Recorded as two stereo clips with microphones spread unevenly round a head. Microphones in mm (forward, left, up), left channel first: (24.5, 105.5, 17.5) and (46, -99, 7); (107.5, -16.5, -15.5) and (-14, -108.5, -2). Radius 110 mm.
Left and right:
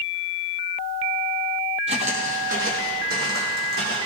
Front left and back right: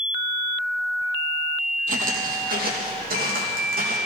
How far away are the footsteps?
About 1.8 m.